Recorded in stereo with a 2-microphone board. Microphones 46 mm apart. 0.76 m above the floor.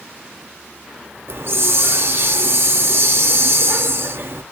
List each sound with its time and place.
1.3 s a hiss: 60° right (ahead or behind), 0.5 m